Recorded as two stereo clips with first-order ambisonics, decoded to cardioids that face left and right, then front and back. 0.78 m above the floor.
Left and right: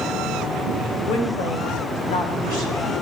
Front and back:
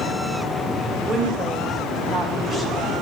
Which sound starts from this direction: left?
A woman speaking, at 1.1 s.